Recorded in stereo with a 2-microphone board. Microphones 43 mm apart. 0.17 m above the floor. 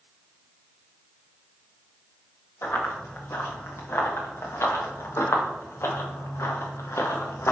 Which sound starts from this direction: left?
Running footsteps, at 2.6 s.